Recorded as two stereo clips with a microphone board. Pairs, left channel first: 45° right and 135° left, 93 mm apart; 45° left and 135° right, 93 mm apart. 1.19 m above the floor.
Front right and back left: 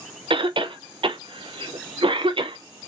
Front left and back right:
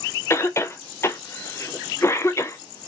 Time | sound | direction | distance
0.3 | a cough | 105° left | 0.5 m